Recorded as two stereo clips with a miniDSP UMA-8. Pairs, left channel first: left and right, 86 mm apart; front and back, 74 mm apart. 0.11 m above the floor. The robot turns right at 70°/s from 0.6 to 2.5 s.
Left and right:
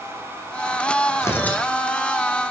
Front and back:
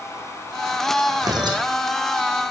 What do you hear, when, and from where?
1.2 s tearing paper: 145° left, 1.6 m; by 1.6 s 175° left, 1.6 m